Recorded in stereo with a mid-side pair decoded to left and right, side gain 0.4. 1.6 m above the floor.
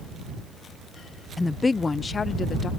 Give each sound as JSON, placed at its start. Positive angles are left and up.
{"t": 1.4, "sound": "a woman speaking", "azimuth_deg": 20}